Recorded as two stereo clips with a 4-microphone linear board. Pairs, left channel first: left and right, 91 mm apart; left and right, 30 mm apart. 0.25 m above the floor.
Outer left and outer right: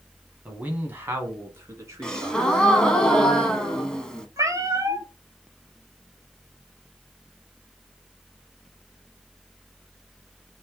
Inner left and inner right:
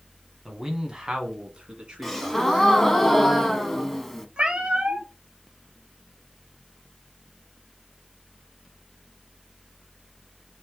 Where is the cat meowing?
40° right (ahead or behind), 0.8 m.